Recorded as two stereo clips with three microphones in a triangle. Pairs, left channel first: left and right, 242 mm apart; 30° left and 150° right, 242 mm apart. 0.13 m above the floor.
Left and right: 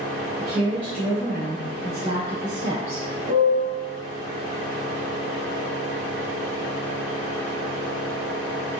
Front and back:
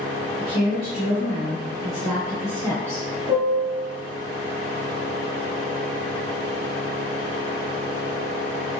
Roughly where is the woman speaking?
Ahead.